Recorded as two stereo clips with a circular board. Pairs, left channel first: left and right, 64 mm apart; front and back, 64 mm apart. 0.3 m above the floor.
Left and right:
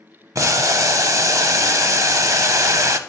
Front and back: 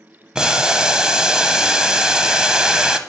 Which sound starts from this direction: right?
Boiling, at 0.3 s.